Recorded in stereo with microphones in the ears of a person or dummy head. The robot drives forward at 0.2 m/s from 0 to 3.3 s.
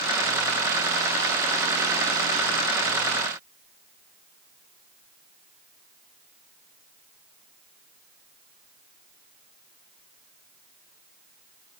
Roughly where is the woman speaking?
I don't hear a woman speaking.